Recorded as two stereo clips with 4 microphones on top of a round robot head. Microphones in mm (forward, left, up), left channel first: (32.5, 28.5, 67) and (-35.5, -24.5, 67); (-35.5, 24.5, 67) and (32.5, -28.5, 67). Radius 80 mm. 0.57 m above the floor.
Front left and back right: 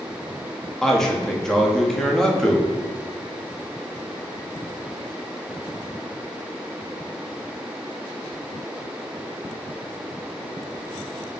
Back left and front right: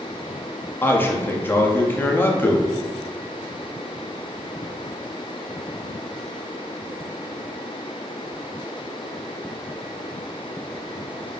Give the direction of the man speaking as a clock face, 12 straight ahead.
8 o'clock.